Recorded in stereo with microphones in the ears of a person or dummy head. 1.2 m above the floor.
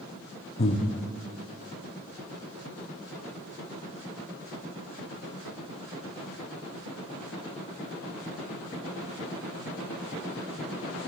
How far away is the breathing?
About 0.9 m.